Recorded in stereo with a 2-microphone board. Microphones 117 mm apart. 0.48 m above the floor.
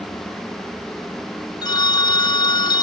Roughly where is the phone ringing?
Left.